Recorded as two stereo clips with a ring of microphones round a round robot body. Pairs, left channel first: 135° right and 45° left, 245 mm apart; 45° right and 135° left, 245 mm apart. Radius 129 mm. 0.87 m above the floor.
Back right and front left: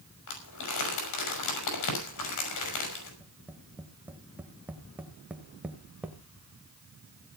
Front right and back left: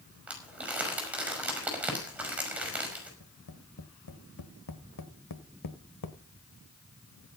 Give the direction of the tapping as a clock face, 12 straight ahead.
1 o'clock.